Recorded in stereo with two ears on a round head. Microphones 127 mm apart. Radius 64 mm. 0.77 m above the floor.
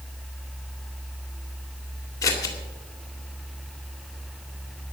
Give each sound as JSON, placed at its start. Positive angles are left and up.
{"t": 2.2, "sound": "scissors", "side_deg": 25, "distance_m": 2.5}